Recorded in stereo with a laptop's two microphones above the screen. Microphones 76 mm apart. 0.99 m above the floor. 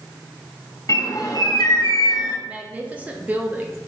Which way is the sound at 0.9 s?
50° left (ahead or behind).